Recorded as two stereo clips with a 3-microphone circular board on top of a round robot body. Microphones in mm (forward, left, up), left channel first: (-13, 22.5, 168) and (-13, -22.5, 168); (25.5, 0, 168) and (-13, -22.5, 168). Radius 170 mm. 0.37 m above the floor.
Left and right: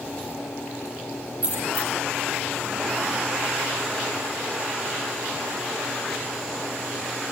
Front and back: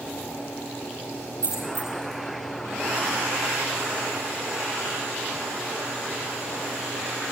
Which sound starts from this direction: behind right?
A dropped coin, at 1.4 s.